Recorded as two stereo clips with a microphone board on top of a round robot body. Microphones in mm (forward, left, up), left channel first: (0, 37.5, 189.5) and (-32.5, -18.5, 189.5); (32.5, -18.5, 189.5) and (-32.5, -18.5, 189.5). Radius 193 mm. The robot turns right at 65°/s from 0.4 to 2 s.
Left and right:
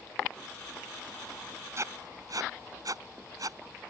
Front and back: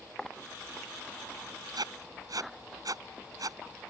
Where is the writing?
165° right; by 3.9 s 150° right.